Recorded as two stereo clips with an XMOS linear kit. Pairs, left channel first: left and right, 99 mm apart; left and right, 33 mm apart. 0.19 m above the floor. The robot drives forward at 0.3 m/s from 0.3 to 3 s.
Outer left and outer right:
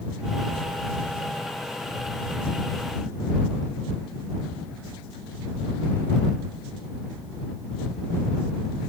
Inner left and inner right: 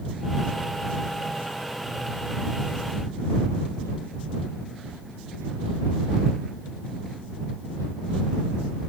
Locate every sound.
Only background noise.